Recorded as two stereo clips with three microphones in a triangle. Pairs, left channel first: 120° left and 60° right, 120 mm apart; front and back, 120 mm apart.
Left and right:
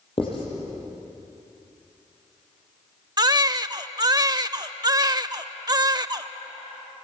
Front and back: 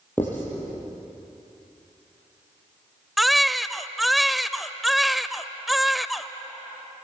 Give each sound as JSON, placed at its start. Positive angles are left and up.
{"t": 0.2, "sound": "writing", "azimuth_deg": 75, "distance_m": 8.0}
{"t": 3.2, "sound": "a baby crying", "azimuth_deg": -90, "distance_m": 0.6}